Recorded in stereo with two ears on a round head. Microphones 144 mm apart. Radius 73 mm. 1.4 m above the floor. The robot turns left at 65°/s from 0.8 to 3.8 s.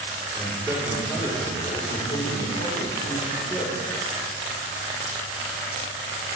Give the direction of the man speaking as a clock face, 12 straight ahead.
5 o'clock.